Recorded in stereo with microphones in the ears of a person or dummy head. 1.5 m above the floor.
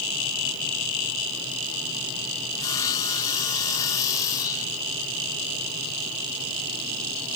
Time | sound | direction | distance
2.6 | sawing | 20° left (ahead or behind) | 1.1 m